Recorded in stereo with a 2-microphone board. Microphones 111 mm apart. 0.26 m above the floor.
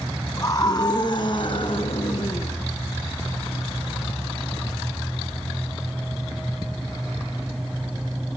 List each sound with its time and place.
0.4 s a scream: 35° left (ahead or behind), 2.5 m; by 2.5 s 60° left (ahead or behind), 2.5 m